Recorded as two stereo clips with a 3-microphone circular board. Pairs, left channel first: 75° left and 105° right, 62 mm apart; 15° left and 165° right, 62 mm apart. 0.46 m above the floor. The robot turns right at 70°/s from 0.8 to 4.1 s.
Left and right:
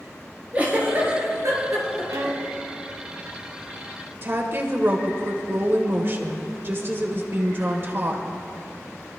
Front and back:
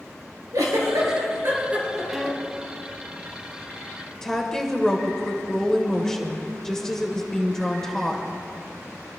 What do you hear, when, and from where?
0.5 s a giggle: 165° right, 4 m; by 2.4 s 55° right, 4 m
2.1 s a violin: 85° right, 1.1 m; by 2.6 s 45° right, 1.1 m
4.2 s a woman speaking: 65° right, 1.4 m